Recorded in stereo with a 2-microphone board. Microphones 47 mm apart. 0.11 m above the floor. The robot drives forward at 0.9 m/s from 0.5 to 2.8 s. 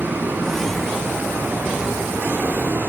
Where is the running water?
45° right (ahead or behind), 6.5 m; by 2.9 s 65° right (ahead or behind), 5.5 m.